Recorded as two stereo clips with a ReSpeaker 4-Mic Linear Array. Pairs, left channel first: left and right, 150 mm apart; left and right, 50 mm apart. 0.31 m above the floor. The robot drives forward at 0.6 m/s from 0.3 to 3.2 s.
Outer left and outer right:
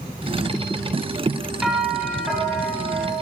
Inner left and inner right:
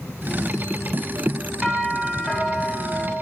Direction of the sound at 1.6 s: 5° right (ahead or behind).